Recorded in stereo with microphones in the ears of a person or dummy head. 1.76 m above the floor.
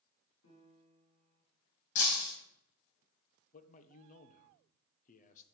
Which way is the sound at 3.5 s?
45° left (ahead or behind).